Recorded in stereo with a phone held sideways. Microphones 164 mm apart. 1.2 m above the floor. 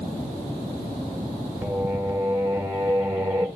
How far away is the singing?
About 1.1 m.